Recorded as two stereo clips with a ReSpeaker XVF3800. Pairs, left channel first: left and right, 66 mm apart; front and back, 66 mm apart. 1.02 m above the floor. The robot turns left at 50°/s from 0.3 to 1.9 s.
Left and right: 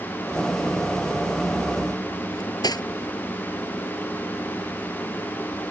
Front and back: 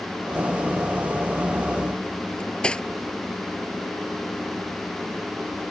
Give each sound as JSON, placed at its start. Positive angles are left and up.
{"t": 2.3, "sound": "cutlery clinking", "azimuth_deg": 80}